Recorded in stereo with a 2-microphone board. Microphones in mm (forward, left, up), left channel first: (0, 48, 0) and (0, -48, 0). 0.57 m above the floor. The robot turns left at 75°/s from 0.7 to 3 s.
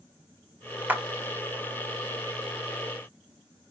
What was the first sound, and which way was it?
A clap, 20° right (ahead or behind).